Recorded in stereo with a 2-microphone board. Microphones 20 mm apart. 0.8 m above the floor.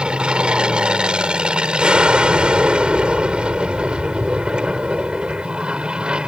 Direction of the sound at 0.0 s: 65° right (ahead or behind).